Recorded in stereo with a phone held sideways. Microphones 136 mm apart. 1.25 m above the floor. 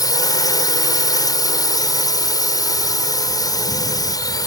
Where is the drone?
25° left (ahead or behind).